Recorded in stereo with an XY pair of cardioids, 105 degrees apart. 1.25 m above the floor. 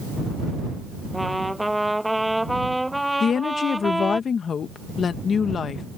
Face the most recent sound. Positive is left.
turn(degrees=50)